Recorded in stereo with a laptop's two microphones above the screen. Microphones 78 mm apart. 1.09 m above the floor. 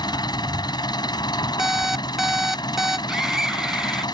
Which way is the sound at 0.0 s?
70° left (ahead or behind).